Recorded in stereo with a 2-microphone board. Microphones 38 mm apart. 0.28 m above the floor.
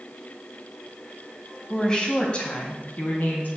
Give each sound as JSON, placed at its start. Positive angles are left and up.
{"t": 1.7, "sound": "a woman speaking", "side_deg": 20, "distance_m": 2.0}